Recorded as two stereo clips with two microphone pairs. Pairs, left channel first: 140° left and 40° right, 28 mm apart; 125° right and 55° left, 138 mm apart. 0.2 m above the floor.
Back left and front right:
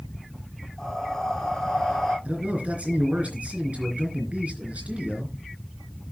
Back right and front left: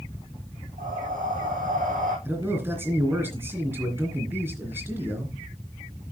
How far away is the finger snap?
I don't hear a finger snap.